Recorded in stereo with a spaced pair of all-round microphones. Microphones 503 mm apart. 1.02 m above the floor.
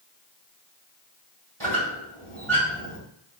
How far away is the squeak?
About 1.8 m.